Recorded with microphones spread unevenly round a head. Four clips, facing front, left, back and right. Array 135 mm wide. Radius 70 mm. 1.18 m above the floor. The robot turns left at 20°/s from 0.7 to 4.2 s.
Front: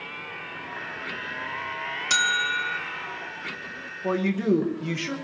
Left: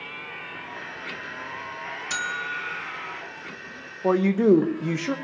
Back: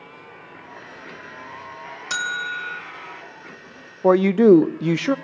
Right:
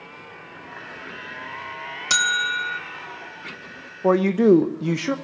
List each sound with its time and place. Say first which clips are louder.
2.1 s a bell: right 8 dB, front 2 dB; 70° right, 0.9 m; by 2.8 s 85° right, 0.9 m
4.0 s a man speaking: right 3 dB, back 11 dB; 170° right, 0.7 m; by 5.2 s 175° right, 0.7 m